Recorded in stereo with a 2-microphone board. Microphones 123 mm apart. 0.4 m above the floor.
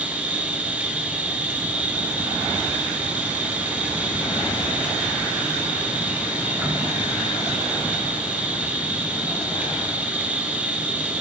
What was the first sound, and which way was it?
An insect, 15° right (ahead or behind).